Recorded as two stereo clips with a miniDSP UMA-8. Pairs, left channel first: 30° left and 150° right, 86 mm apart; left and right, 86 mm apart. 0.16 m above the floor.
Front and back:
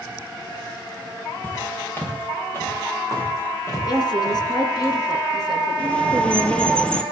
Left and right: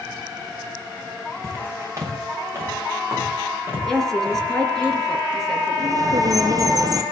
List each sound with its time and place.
1.4 s footsteps: 40° right, 4 m; by 4.9 s 25° right, 7 m
3.9 s a woman speaking: 5° left, 2.5 m
5.8 s a bird: 50° right, 1.0 m